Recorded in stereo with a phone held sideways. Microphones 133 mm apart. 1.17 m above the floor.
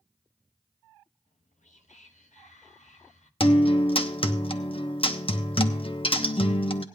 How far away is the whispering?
About 1.1 m.